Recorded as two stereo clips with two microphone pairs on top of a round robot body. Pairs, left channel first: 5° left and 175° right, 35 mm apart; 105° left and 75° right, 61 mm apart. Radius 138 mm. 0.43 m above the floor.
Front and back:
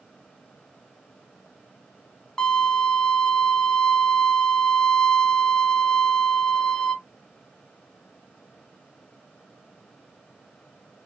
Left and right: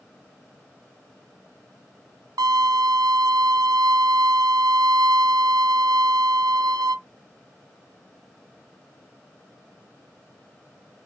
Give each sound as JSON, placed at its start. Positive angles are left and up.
{"t": 2.4, "sound": "a violin", "azimuth_deg": -65, "distance_m": 0.6}